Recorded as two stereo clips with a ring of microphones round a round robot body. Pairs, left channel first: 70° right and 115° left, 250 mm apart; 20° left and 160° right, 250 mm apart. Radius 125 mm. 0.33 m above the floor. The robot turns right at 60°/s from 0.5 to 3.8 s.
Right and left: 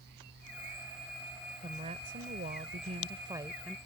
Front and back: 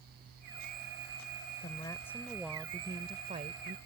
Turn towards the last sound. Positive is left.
turn(degrees=-160)